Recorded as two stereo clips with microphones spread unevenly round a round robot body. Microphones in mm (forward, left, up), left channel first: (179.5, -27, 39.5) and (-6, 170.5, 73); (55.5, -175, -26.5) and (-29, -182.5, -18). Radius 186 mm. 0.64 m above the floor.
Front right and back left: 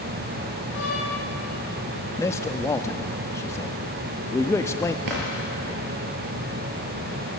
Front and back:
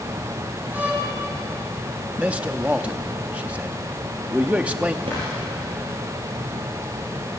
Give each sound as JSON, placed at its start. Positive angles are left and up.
{"t": 0.7, "sound": "a violin", "azimuth_deg": -105, "distance_m": 7.5}
{"t": 2.2, "sound": "a man speaking", "azimuth_deg": -105, "distance_m": 0.8}
{"t": 5.0, "sound": "a drawer", "azimuth_deg": 135, "distance_m": 6.0}